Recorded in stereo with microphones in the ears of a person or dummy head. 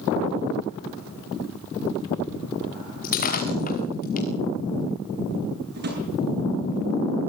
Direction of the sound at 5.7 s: 50° right (ahead or behind).